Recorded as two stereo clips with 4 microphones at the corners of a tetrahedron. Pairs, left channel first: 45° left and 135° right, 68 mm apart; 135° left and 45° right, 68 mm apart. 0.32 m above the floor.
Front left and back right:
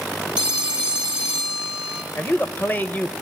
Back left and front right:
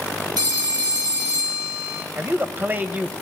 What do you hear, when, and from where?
0.4 s a phone ringing: 60° right, 3 m
2.2 s a man speaking: 5° right, 1.1 m